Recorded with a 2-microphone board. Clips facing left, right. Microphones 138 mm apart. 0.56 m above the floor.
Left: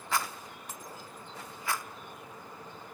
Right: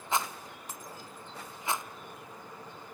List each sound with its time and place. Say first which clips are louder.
0.1 s a rattle: right 1 dB; 20° right (ahead or behind), 0.7 m